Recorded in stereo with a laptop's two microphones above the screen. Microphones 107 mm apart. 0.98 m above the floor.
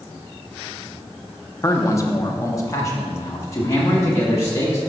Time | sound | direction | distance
1.6 | a man speaking | 25° left (ahead or behind) | 0.6 m